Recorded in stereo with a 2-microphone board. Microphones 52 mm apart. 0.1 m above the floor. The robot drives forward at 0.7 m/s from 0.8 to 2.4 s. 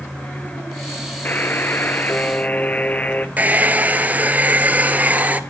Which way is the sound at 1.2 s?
35° left (ahead or behind).